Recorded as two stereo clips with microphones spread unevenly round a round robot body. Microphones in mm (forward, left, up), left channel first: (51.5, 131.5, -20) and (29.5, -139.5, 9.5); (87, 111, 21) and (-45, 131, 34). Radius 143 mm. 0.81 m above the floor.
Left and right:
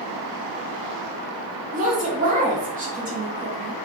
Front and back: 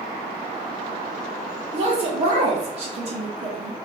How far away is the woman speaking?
About 0.7 m.